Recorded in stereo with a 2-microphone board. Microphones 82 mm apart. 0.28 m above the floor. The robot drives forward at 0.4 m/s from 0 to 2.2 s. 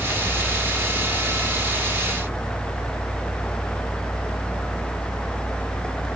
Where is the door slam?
No door slam in this recording.